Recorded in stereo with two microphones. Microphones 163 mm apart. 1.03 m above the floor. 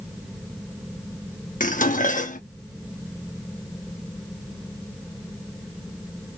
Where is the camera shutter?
I don't hear a camera shutter.